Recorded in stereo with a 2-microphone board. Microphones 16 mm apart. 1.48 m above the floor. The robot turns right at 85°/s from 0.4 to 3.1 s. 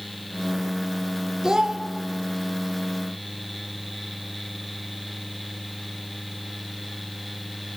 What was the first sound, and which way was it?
A child speaking, 35° right (ahead or behind).